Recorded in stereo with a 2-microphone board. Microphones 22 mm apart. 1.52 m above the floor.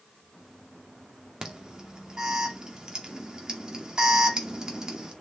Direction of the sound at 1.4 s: 35° right (ahead or behind).